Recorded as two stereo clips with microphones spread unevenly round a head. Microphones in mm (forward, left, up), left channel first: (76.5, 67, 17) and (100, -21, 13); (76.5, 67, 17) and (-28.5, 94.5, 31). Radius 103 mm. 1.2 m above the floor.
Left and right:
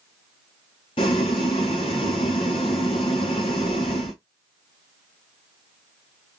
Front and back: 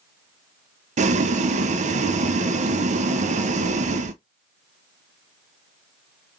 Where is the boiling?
160° left, 0.6 m.